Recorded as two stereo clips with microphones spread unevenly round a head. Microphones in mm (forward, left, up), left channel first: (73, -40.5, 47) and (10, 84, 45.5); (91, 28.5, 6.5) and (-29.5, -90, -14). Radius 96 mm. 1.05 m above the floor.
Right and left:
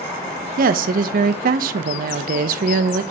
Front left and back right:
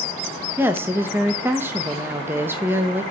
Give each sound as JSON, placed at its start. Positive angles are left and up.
{"t": 0.6, "sound": "a woman speaking", "azimuth_deg": 145, "distance_m": 0.6}